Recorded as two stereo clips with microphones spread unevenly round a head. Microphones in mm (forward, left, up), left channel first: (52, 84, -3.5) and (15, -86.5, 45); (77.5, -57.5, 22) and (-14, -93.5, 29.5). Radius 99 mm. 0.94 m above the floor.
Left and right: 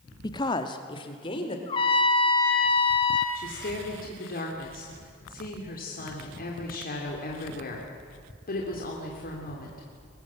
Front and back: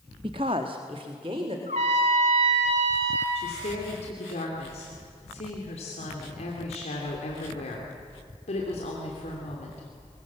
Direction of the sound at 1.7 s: 150° left.